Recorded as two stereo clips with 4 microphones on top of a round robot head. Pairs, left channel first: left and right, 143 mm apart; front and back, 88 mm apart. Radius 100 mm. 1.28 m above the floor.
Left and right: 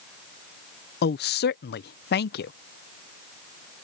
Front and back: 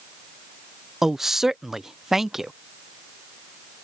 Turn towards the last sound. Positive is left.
turn(degrees=95)